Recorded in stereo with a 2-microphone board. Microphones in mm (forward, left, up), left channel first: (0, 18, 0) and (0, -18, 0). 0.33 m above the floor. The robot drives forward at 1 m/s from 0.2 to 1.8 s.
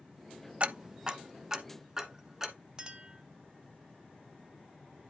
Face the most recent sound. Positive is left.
turn(degrees=-20)  # may be behind; listen again after turning